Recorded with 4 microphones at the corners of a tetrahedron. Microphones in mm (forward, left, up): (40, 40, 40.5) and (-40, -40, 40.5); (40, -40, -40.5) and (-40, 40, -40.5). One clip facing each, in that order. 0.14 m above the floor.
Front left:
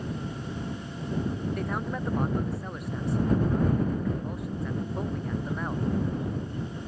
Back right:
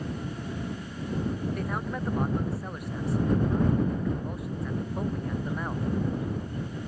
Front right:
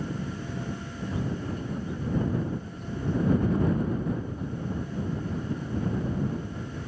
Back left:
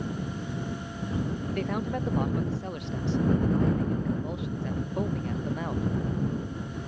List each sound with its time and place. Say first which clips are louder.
1.5 s a man speaking: front left 1 dB, back left 4 dB; 135° left